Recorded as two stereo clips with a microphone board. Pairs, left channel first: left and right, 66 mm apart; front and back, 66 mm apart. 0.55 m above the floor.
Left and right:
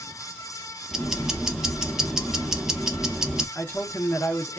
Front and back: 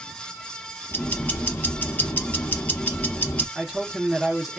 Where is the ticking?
20° right, 0.7 m.